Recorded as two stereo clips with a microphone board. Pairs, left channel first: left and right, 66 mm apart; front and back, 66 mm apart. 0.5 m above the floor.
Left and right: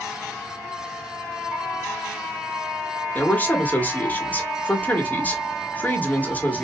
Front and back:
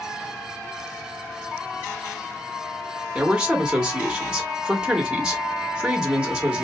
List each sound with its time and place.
3.1 s a man speaking: 120° left, 0.9 m